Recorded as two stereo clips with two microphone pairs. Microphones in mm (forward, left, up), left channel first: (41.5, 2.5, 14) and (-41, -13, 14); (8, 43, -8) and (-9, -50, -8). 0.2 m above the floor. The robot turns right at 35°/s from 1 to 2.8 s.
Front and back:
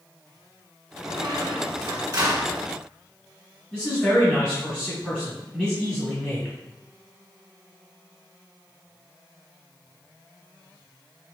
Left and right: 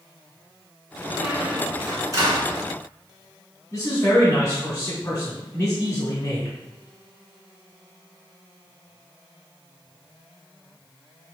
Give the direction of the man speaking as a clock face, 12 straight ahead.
9 o'clock.